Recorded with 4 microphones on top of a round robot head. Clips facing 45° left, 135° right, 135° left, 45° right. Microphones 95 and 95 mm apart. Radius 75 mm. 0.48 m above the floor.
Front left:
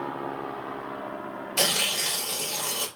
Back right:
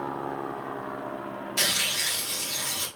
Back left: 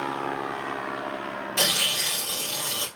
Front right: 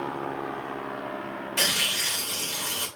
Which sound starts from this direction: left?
Tearing paper, at 1.6 s.